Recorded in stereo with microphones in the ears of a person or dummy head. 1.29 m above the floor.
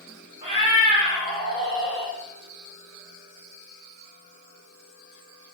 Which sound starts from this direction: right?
A cat meowing, at 0.4 s.